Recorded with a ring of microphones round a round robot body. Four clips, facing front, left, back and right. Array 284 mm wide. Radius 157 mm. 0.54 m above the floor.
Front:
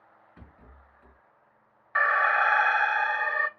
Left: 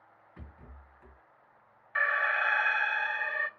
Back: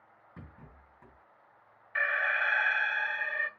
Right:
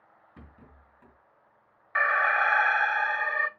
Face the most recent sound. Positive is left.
turn(degrees=-35)